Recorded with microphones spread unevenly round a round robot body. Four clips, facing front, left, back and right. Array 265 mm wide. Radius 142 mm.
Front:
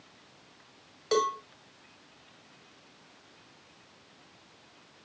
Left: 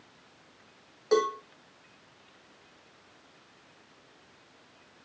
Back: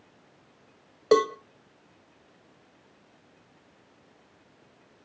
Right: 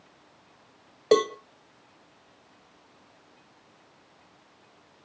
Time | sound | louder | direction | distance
1.1 | a cowbell | right 4 dB, back 6 dB | 130° right | 0.7 m